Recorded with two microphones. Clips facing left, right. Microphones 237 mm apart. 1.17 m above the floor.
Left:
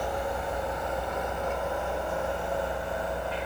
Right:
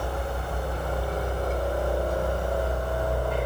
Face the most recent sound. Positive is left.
turn(degrees=-50)  # may be behind; listen again after turning